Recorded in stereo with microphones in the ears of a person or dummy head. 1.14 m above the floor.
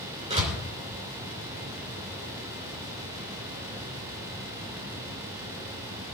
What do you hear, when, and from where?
0.3 s a door slam: 30° right (ahead or behind), 3 m